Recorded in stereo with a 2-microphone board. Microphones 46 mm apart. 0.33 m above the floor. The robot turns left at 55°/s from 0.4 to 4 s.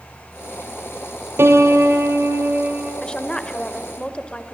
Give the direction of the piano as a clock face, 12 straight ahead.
2 o'clock.